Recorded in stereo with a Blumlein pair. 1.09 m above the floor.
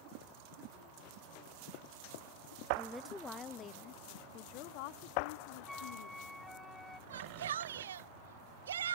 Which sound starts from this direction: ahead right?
A shout, at 7.1 s.